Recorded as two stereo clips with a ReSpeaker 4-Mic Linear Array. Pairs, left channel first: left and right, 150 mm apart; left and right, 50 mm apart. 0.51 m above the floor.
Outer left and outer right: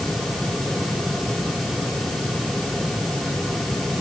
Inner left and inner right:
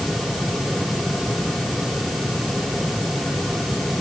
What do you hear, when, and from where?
Only background noise.